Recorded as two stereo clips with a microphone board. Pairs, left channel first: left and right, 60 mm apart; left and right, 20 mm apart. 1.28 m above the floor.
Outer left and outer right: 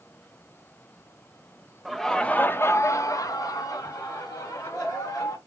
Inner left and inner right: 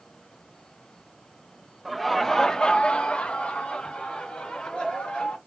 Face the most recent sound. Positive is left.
turn(degrees=80)